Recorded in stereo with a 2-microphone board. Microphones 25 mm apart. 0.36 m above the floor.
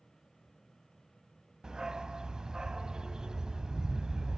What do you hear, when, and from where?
1.6 s a dog barking: 30° right (ahead or behind), 0.7 m